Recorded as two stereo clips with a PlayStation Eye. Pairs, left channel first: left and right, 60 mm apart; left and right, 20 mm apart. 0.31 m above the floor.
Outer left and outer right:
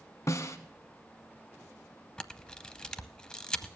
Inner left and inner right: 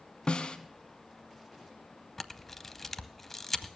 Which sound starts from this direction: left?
A snare drum, at 0.3 s.